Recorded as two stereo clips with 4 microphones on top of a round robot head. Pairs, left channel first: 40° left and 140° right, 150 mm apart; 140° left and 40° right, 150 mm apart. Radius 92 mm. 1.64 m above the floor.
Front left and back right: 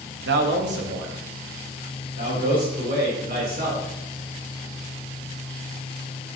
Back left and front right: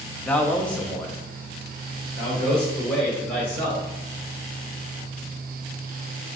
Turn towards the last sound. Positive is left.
turn(degrees=-140)